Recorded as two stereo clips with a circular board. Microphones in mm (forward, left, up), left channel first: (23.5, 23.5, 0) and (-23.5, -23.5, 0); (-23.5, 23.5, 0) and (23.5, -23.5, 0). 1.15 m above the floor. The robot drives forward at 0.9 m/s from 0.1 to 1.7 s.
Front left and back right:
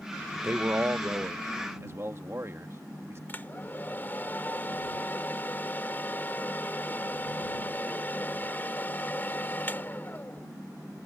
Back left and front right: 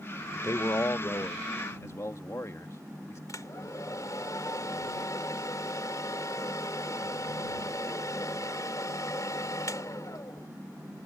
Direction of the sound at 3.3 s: 105° left.